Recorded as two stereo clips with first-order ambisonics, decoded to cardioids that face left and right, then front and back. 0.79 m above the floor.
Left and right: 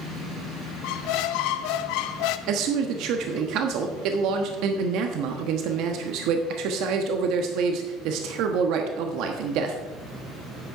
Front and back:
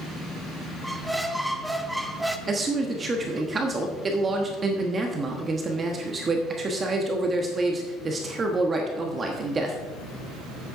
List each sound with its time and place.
0.8 s a squeak: 90° left, 0.6 m
2.5 s a man speaking: 110° right, 1.1 m